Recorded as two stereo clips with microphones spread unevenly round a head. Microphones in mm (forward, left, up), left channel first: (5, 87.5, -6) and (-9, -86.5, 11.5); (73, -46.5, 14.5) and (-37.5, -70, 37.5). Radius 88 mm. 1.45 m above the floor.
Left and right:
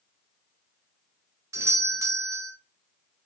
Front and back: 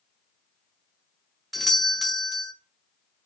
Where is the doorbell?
40° right, 0.5 m.